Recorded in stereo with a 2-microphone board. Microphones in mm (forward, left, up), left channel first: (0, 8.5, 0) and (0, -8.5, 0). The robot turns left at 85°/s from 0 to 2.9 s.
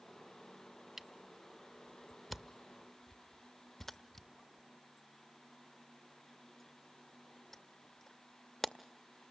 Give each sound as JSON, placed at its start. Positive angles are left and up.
{"t": 1.0, "sound": "a camera shutter", "side_deg": -20, "distance_m": 0.6}